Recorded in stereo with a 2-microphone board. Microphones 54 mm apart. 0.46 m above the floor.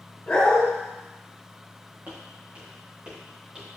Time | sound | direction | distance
0.3 | a dog barking | 25° left (ahead or behind) | 2.5 m
2.1 | footsteps | 35° right (ahead or behind) | 3.5 m